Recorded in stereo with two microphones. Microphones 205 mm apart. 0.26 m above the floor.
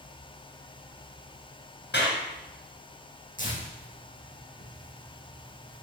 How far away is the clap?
About 2.5 m.